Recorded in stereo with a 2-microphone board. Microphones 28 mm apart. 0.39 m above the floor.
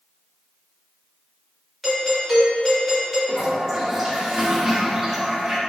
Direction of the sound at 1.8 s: Centre (ahead or behind).